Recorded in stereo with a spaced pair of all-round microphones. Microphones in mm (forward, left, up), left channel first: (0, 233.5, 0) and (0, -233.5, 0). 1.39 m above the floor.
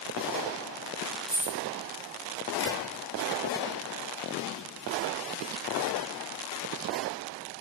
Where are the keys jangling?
75° left (ahead or behind), 1.3 m.